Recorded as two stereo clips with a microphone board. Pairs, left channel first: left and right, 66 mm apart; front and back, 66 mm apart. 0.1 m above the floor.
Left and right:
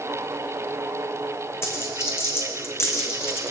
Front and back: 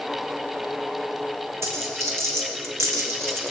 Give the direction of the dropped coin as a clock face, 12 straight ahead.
7 o'clock.